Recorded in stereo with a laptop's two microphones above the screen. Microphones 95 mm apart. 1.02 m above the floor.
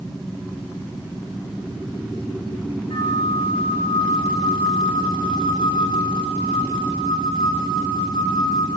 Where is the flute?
60° left (ahead or behind), 9.5 m.